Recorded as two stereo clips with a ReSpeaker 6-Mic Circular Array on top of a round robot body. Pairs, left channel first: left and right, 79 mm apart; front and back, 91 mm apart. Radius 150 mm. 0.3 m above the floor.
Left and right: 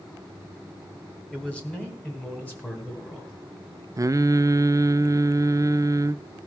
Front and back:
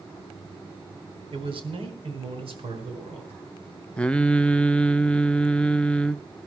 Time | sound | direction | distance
1.3 | a man speaking | 165° left | 2.5 m
4.0 | singing | 75° right | 0.6 m